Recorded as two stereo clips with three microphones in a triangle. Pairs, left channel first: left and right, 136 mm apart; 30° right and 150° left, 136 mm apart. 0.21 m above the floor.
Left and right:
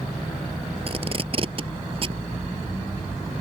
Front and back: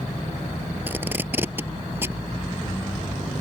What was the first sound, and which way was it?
Tape being pulled, 135° right.